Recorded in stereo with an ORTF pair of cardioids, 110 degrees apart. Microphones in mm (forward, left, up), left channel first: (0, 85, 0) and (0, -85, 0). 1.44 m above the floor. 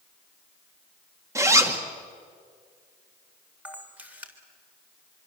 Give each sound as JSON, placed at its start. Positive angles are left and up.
{"t": 1.4, "sound": "a zipper", "azimuth_deg": -15, "distance_m": 2.5}
{"t": 3.6, "sound": "a camera shutter", "azimuth_deg": -10, "distance_m": 3.5}